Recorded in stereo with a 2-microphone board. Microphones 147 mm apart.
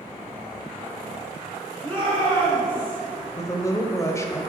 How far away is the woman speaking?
About 1.1 m.